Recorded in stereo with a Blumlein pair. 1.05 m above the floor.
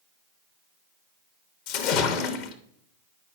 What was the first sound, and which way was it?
A splash, 45° left.